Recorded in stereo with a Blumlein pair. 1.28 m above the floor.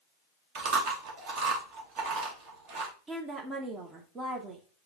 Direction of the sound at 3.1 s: 20° right.